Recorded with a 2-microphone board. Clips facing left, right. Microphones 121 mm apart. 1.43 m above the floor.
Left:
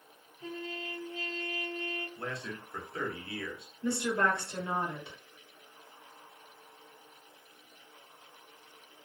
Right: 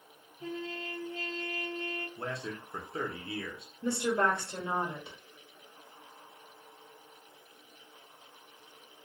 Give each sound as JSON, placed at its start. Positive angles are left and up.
{"t": 0.4, "sound": "a trumpet", "side_deg": -40, "distance_m": 0.9}
{"t": 2.2, "sound": "a man speaking", "side_deg": -25, "distance_m": 0.7}
{"t": 3.8, "sound": "a woman speaking", "side_deg": -25, "distance_m": 1.0}